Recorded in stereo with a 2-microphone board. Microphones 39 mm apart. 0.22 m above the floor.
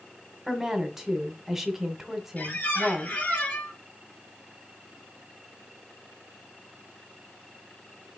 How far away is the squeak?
About 3.5 m.